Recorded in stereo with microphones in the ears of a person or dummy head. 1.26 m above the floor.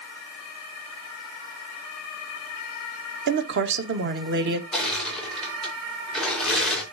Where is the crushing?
5° left (ahead or behind), 4.5 m.